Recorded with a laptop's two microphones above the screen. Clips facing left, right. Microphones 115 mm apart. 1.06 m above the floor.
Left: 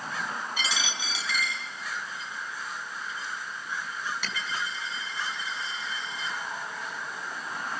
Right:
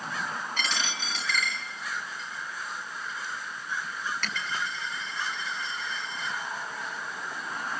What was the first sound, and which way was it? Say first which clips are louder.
A dropped coin: even; 10° left (ahead or behind).